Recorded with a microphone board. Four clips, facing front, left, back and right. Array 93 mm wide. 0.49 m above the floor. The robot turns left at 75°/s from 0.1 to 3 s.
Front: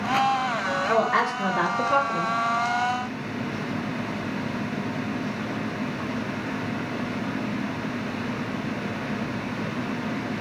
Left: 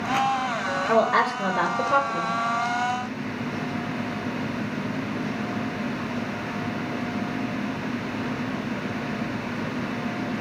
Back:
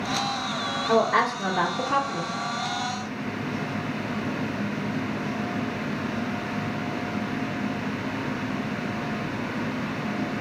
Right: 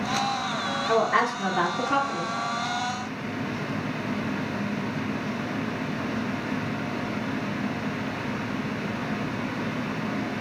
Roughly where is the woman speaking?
Ahead right.